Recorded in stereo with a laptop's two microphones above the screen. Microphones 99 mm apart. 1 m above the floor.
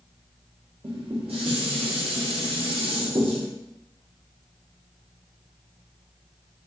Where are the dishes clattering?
70° right (ahead or behind), 1.1 m.